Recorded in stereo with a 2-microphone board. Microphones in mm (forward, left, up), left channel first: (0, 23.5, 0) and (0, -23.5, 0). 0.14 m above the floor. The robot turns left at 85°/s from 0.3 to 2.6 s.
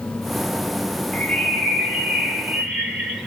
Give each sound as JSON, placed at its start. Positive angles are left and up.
{"t": 1.1, "sound": "a bird", "side_deg": 20, "distance_m": 1.2}